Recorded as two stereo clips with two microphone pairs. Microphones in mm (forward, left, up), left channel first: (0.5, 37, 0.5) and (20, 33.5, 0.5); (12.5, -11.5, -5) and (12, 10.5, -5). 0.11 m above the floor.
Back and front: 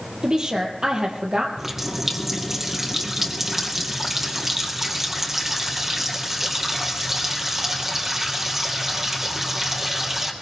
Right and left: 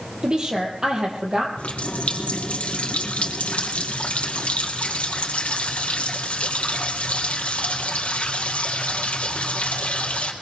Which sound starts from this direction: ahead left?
A woman speaking, at 0.2 s.